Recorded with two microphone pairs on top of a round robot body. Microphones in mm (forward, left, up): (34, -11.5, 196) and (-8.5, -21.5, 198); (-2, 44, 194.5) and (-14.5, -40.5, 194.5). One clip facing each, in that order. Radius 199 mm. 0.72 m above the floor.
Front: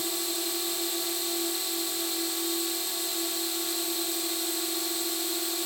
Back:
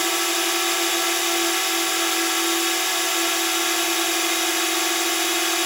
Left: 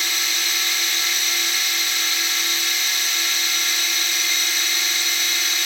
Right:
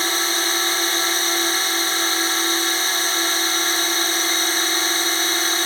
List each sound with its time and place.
0.0 s a drone: 150° right